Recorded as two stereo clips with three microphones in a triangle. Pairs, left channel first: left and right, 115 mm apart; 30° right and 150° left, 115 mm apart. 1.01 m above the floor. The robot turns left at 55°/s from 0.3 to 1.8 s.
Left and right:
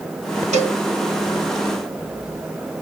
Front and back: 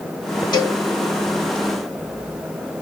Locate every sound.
0.5 s a cowbell: 80° right, 1.3 m; by 0.8 s 95° right, 1.3 m